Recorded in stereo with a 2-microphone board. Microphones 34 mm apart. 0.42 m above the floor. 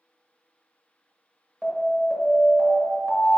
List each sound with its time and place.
1.6 s an alarm: 5° left (ahead or behind), 2.5 m